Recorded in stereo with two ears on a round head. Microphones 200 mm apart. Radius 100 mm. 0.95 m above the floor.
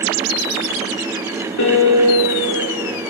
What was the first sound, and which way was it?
A piano, 55° left (ahead or behind).